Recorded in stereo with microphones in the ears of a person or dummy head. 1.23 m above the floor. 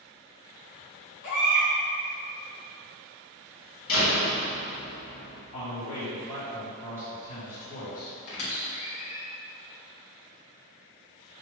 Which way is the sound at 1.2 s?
55° left (ahead or behind).